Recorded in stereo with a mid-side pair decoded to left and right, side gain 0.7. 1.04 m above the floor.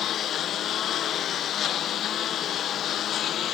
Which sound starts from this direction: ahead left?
A lawn mower, at 0.0 s.